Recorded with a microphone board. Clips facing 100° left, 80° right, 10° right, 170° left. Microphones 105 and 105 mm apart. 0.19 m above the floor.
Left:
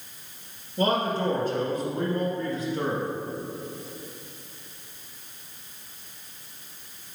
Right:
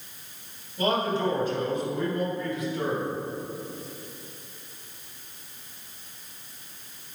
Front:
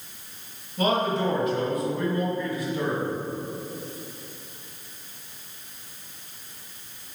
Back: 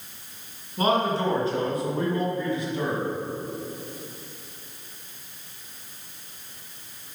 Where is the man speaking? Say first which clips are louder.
Left 1 dB, back 1 dB; 120° left, 2.5 m.